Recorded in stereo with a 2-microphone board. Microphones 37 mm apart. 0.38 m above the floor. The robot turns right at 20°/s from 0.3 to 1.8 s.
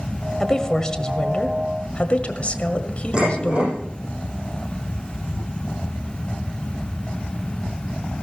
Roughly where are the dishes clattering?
Right.